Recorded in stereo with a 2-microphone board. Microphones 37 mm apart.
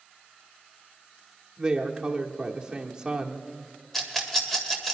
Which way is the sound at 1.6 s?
20° right (ahead or behind).